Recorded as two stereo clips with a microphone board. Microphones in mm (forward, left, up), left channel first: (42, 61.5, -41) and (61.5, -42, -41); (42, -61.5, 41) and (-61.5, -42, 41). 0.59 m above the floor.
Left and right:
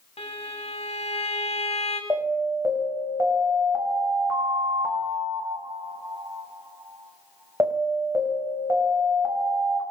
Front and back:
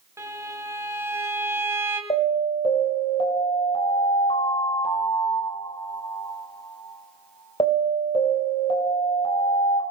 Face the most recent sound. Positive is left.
turn(degrees=-20)